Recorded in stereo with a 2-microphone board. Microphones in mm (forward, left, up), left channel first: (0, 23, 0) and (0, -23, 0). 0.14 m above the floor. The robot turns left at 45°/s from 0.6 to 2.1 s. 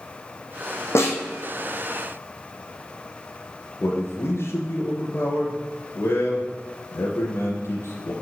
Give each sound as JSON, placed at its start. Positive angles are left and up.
{"t": 0.9, "sound": "a snare drum", "side_deg": 65, "distance_m": 2.5}
{"t": 3.8, "sound": "a man speaking", "side_deg": 55, "distance_m": 3.0}